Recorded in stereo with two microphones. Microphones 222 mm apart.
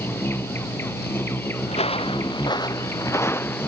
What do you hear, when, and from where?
0.0 s an insect: 10° left (ahead or behind)
1.7 s footsteps: 30° left (ahead or behind); by 3.7 s 10° left (ahead or behind)